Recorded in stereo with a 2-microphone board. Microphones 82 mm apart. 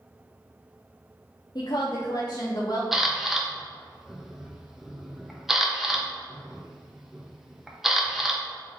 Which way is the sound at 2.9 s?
5° right (ahead or behind).